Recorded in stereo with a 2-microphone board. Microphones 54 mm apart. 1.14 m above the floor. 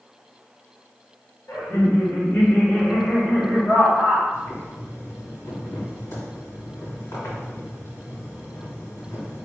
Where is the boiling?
55° left (ahead or behind), 2 m.